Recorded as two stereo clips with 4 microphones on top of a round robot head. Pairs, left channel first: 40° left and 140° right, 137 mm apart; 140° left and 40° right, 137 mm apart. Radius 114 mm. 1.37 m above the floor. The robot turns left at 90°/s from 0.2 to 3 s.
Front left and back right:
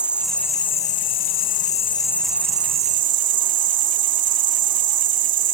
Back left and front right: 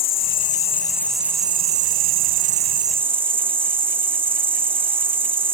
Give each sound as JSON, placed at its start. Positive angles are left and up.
{"t": 0.0, "sound": "an insect", "azimuth_deg": 135}